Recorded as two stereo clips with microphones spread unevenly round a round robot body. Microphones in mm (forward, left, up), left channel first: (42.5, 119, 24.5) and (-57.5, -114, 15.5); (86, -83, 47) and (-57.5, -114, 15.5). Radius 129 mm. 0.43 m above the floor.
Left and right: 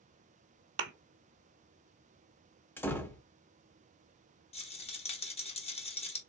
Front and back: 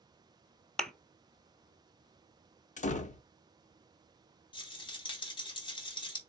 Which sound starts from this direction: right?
A thud, at 0.8 s.